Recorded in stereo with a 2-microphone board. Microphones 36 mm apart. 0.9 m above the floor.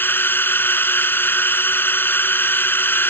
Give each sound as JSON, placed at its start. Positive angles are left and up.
{"t": 0.0, "sound": "a drone", "side_deg": 80}